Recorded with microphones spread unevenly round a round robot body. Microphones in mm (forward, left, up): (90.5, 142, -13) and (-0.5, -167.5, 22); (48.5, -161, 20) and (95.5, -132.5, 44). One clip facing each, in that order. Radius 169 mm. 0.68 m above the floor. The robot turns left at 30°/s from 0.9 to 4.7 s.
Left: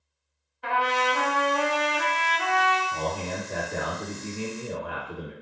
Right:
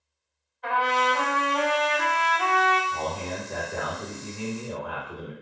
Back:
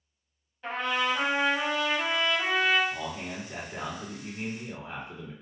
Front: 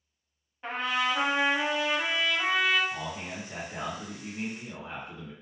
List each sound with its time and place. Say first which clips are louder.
0.6 s a trumpet: even, even; 20° left, 0.6 m; by 2.8 s 35° right, 0.6 m
2.9 s a man speaking: left 1 dB, back 1 dB; 110° left, 1.3 m; by 5.3 s 55° left, 1.3 m